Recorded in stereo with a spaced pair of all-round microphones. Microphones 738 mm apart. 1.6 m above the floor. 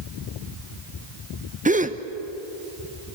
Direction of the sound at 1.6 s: 10° right (ahead or behind).